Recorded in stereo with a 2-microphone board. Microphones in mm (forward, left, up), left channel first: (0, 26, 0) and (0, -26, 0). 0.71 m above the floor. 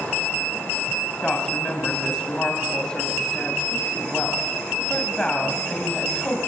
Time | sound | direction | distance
1.2 | a woman speaking | 15° left (ahead or behind) | 4.5 m